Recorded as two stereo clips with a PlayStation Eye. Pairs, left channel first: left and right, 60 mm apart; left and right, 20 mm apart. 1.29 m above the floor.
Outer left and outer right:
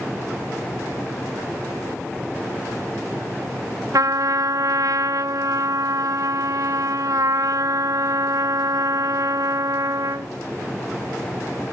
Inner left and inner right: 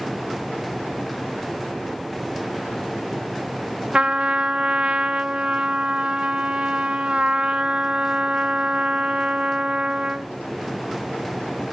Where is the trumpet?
70° right (ahead or behind), 0.6 m.